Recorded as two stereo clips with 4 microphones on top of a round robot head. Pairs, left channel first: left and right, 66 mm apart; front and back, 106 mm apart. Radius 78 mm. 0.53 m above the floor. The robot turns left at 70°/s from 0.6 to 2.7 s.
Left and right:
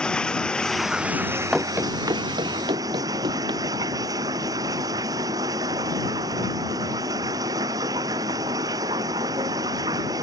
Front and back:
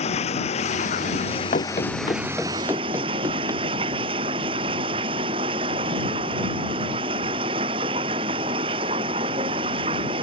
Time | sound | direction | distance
0.0 | running water | 15° left | ?
1.5 | running footsteps | 5° right | ?